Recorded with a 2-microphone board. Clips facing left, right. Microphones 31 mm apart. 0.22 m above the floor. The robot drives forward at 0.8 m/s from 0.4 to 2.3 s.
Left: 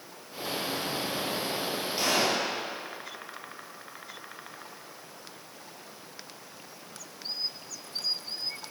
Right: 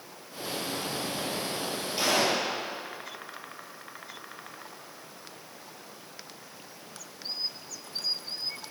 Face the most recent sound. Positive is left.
turn(degrees=-5)  # may be behind; listen again after turning